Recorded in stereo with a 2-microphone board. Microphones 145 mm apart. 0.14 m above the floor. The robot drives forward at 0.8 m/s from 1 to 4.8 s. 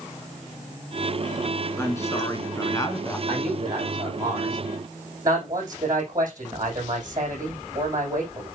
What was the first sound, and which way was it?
A woman speaking, 20° left (ahead or behind).